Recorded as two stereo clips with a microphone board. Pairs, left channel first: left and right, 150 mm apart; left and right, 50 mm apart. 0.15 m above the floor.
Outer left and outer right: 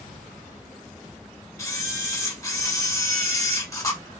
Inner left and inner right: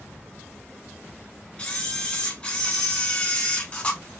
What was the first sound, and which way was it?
A camera shutter, 20° left (ahead or behind).